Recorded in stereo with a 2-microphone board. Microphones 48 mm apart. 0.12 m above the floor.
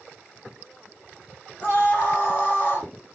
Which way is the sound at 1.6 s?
35° left (ahead or behind).